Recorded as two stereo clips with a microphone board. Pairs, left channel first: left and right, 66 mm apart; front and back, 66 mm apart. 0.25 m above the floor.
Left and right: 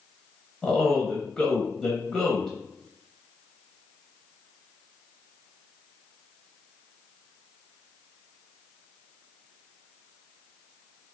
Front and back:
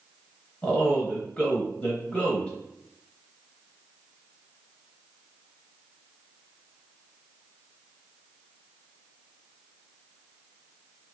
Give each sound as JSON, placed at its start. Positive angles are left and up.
{"t": 0.6, "sound": "a man speaking", "azimuth_deg": 20, "distance_m": 0.9}